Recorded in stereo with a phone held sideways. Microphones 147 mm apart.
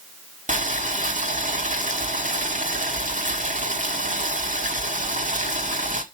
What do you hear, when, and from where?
0.5 s boiling: 65° right (ahead or behind), 1.7 m